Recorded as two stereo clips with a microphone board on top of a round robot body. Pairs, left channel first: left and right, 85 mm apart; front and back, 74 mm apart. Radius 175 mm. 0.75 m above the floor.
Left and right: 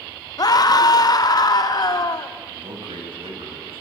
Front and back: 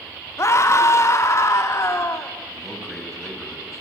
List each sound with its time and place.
0.4 s a scream: 50° left, 2.5 m
2.5 s a man speaking: 90° right, 6 m